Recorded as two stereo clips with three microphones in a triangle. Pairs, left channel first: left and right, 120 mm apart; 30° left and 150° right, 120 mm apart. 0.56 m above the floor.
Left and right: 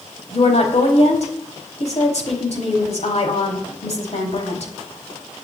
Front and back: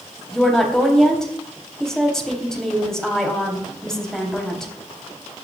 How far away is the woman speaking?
About 4.5 m.